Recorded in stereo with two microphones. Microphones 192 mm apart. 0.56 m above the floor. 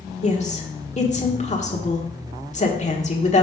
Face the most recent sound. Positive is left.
turn(degrees=40)  # may be behind; listen again after turning